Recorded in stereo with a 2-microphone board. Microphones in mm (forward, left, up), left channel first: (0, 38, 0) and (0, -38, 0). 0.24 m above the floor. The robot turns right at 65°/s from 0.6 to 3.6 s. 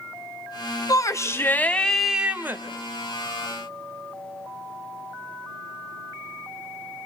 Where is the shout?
110° left, 1.7 m; by 2.6 s 140° right, 1.7 m.